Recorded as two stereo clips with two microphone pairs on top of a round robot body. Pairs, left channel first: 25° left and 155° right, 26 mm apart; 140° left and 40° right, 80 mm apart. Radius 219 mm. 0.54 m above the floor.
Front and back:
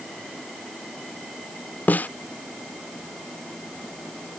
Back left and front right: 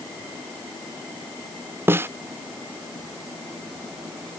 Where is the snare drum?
25° left.